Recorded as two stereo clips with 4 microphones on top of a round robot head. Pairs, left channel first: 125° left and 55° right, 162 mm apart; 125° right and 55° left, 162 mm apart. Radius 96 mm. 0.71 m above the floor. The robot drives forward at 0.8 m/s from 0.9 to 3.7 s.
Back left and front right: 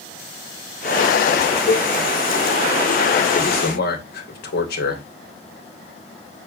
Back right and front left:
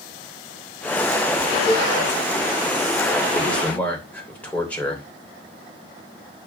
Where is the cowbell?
145° left, 0.9 m; by 1.9 s 155° left, 1.0 m.